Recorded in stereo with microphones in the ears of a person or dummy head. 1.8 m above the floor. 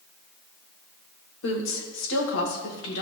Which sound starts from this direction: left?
A woman speaking, at 1.4 s.